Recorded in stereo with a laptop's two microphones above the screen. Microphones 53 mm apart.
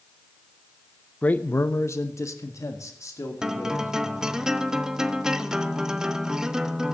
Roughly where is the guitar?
Centre.